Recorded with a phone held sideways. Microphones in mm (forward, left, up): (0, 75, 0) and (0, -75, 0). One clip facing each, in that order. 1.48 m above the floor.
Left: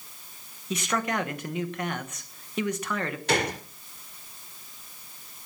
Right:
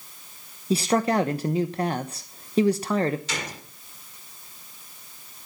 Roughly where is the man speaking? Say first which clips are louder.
Right 7 dB; right.